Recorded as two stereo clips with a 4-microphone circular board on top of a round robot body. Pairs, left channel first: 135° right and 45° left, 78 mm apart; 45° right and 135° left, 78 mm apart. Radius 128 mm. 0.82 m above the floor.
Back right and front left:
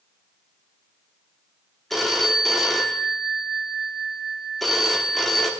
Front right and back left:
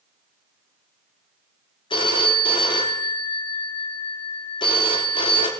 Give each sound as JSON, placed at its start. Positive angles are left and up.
{"t": 1.9, "sound": "a phone ringing", "azimuth_deg": -45, "distance_m": 0.9}